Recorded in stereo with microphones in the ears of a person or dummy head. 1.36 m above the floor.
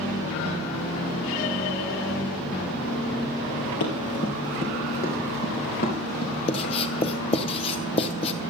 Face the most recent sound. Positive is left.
turn(degrees=30)  # may be behind; listen again after turning